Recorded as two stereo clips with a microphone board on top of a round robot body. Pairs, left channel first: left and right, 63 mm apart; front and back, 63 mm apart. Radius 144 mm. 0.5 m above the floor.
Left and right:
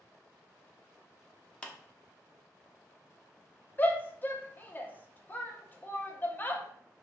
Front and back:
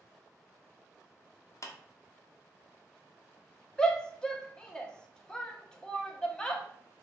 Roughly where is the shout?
Ahead left.